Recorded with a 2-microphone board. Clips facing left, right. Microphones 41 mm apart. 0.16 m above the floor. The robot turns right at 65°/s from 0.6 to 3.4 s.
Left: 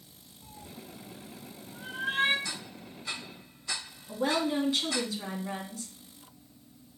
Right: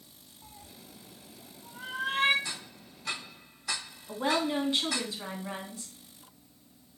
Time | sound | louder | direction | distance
0.4 | a cat meowing | left 5 dB | 15° right (ahead or behind) | 1.5 m
2.5 | ticking | left 1 dB | 15° right (ahead or behind) | 3.5 m
4.1 | a woman speaking | even | 20° right (ahead or behind) | 1.1 m